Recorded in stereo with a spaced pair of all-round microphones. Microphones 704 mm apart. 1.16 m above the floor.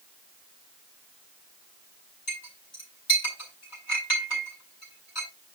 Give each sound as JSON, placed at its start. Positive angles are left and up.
{"t": 2.3, "sound": "a clink", "side_deg": 65, "distance_m": 5.0}